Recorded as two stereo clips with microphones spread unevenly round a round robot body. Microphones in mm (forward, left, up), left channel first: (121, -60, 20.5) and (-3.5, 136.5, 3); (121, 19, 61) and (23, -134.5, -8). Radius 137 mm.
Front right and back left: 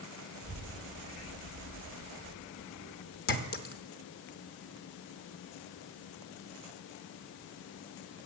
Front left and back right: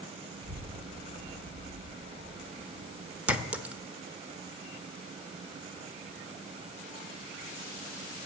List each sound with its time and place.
0.4 s a child speaking: 135° right, 1.8 m; by 3.2 s 75° right, 3.5 m
3.3 s a clink: 80° right, 1.0 m